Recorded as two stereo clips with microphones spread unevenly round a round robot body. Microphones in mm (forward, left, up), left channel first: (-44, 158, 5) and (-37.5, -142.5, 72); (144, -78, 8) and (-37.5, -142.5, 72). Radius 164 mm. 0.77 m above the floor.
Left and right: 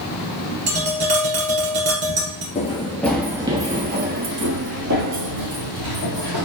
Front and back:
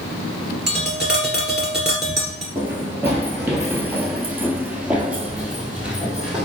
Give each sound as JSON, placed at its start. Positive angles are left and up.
{"t": 0.7, "sound": "tapping", "azimuth_deg": -80, "distance_m": 2.0}
{"t": 2.5, "sound": "running footsteps", "azimuth_deg": 165, "distance_m": 0.8}